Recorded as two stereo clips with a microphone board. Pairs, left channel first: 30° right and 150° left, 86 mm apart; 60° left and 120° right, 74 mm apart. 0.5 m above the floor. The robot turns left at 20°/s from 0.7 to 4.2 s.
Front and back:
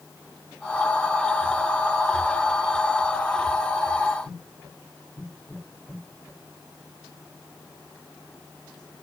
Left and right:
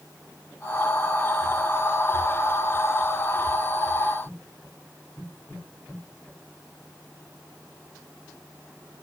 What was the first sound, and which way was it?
Only background noise.